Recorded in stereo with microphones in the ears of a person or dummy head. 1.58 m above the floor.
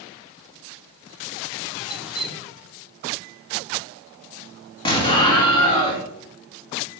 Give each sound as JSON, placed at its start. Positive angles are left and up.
{"t": 1.9, "sound": "dripping", "side_deg": 0, "distance_m": 1.0}
{"t": 4.8, "sound": "an explosion", "side_deg": 30, "distance_m": 1.7}